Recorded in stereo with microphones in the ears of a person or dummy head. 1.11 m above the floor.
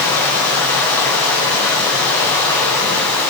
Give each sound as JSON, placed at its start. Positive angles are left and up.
{"t": 0.0, "sound": "running water", "side_deg": 10, "distance_m": 8.0}